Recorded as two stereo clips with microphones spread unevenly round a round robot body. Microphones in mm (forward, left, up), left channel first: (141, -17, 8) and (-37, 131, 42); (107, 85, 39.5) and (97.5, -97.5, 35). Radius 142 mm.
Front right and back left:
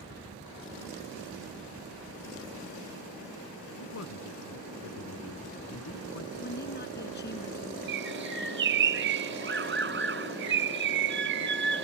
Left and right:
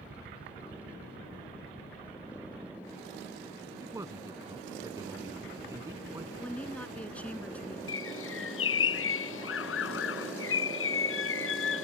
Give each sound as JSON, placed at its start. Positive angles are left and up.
{"t": 3.8, "sound": "a man speaking", "azimuth_deg": -20}
{"t": 6.4, "sound": "a woman speaking", "azimuth_deg": 5}
{"t": 7.9, "sound": "a bird", "azimuth_deg": 100}